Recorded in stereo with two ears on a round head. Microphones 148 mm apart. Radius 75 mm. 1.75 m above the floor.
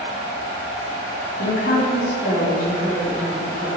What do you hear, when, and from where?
1.4 s a woman speaking: 70° left (ahead or behind), 4 m